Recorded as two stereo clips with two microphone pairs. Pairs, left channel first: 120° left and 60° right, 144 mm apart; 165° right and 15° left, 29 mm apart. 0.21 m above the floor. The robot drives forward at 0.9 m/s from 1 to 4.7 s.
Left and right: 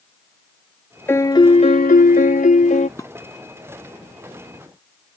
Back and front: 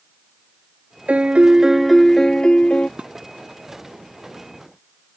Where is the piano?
45° left; by 2.9 s 150° left.